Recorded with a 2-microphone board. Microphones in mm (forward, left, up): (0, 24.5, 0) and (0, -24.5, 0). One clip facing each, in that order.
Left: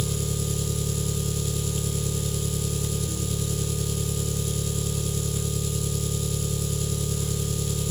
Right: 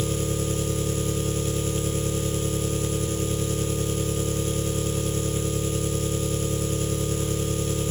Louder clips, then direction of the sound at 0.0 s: Right 3 dB; 40° right (ahead or behind).